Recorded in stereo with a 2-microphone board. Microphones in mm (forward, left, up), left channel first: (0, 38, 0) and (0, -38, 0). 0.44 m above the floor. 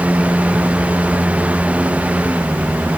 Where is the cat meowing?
No cat meowing in this recording.